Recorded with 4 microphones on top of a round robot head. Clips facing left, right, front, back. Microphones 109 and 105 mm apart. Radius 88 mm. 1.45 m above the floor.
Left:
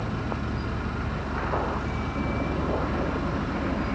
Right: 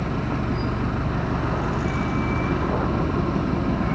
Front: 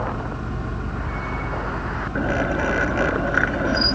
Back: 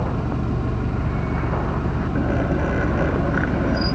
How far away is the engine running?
About 1.5 m.